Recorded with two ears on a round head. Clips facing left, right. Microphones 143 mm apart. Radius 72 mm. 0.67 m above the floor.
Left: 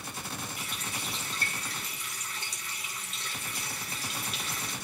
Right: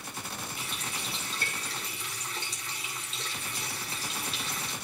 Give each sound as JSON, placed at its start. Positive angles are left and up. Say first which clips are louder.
{"t": 0.6, "sound": "a running tap", "louder": "even", "side_deg": -25, "distance_m": 4.5}